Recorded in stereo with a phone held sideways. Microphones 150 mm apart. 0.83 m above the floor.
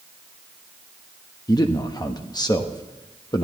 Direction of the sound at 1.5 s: 25° left (ahead or behind).